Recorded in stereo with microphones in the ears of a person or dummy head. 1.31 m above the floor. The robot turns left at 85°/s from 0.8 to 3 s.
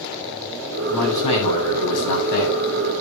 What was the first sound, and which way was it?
A man speaking, straight behind.